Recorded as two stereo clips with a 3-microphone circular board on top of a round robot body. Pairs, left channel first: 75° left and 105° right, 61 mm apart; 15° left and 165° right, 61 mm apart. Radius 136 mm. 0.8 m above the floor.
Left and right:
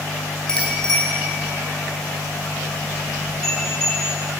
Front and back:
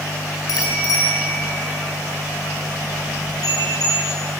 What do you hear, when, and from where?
0.5 s a bicycle bell: 5° right, 3.5 m